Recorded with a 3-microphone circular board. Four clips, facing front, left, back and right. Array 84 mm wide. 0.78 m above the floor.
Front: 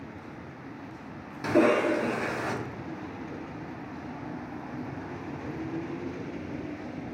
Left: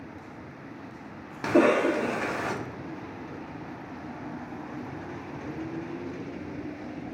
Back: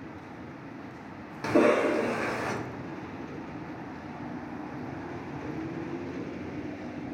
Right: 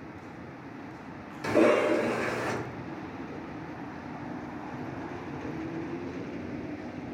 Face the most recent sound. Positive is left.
turn(degrees=105)